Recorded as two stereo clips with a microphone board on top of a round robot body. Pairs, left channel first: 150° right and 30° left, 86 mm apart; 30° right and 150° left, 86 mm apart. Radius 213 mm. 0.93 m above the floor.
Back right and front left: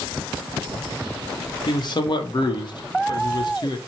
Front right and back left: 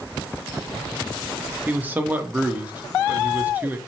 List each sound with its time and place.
1.7 s a man speaking: 145° right, 1.0 m